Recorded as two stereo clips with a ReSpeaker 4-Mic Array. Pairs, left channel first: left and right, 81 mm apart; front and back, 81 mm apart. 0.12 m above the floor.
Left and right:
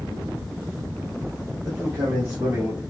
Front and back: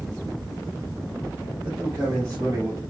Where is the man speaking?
110° right, 1.7 m; by 2.8 s 150° right, 2.5 m.